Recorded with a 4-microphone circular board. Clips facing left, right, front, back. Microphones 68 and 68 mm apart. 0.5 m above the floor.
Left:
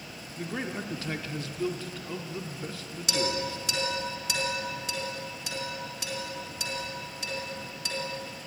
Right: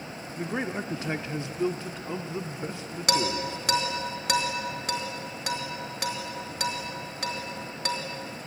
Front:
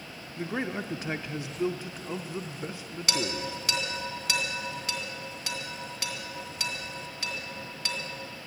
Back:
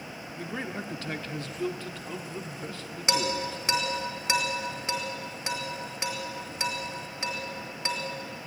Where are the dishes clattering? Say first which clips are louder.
Right 3 dB, back 3 dB; 115° right, 3 m.